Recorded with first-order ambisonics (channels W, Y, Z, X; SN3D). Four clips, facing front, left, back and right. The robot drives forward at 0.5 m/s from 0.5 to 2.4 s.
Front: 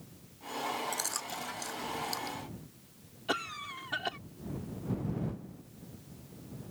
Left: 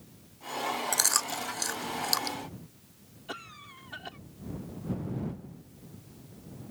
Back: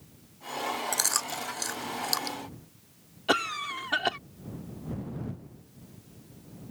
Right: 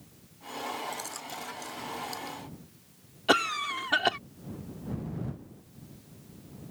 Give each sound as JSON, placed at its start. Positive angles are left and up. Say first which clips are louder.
{"t": 0.9, "sound": "chewing", "louder": "left 10 dB, back 7 dB", "azimuth_deg": 125}
{"t": 3.3, "sound": "a cough", "louder": "right 17 dB, back 8 dB", "azimuth_deg": -120}